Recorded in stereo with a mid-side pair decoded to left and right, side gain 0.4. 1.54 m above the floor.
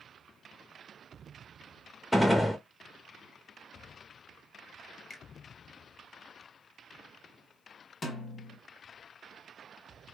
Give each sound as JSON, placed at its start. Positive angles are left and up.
{"t": 2.1, "sound": "a gunshot", "azimuth_deg": 10, "distance_m": 1.1}
{"t": 5.1, "sound": "a finger snap", "azimuth_deg": 35, "distance_m": 1.3}
{"t": 8.0, "sound": "a snare drum", "azimuth_deg": 45, "distance_m": 1.5}